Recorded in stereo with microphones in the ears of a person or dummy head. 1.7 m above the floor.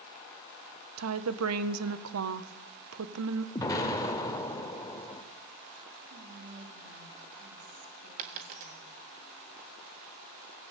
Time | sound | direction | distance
1.0 | a woman speaking | 90° right | 1.5 m
3.5 | an explosion | 20° left (ahead or behind) | 2 m
6.1 | whispering | 50° right (ahead or behind) | 4 m
8.2 | a dropped coin | 45° right (ahead or behind) | 1.3 m